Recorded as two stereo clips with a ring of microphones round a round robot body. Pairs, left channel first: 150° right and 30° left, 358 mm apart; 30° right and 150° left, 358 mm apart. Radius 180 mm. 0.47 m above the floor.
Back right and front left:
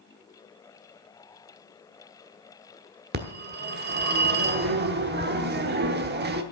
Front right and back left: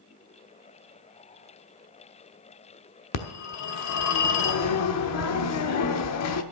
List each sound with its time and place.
3.1 s a phone ringing: 20° right, 1.0 m